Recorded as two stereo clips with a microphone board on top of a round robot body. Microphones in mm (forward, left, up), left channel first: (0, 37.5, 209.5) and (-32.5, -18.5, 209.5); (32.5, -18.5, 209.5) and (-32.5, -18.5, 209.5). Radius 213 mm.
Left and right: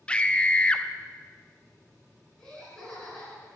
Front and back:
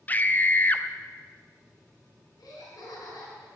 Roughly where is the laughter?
Ahead.